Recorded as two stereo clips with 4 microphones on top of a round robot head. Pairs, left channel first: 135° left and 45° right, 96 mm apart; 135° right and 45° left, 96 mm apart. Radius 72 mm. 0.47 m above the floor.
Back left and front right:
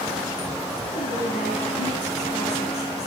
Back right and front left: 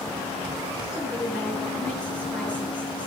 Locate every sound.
0.9 s a woman speaking: 145° left, 9 m